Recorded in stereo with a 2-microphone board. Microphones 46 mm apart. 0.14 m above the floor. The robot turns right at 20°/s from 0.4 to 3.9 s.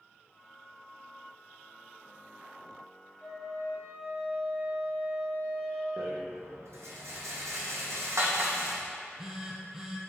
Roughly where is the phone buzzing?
Centre.